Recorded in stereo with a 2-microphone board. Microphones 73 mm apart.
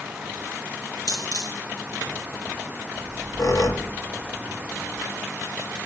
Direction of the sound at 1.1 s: 55° left (ahead or behind).